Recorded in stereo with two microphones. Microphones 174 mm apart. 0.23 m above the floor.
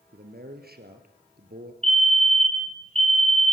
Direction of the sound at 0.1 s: 65° right (ahead or behind).